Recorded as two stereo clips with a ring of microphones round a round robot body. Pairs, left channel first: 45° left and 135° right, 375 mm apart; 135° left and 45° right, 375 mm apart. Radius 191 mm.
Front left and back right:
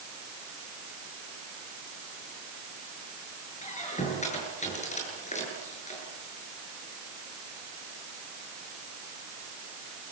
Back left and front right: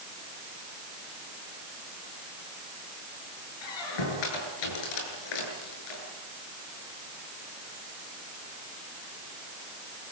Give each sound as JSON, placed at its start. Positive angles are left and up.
{"t": 3.6, "sound": "a squeak", "azimuth_deg": 120, "distance_m": 8.0}